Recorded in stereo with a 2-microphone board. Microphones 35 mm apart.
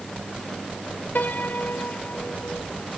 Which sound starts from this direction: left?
A piano, at 1.1 s.